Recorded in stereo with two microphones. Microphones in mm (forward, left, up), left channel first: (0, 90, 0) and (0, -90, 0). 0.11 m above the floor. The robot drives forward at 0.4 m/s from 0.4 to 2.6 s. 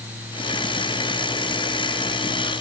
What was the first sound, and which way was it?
Only background noise.